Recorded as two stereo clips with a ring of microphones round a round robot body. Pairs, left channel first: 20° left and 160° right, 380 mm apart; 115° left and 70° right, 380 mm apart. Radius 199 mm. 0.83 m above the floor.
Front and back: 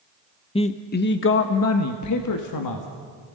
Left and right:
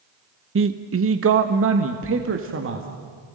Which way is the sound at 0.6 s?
45° right.